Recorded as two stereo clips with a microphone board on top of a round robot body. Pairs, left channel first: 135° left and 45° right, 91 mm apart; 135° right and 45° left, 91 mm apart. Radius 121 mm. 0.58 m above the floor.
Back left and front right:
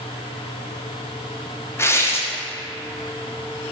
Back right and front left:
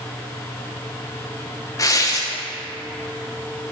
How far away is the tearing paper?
About 1.0 m.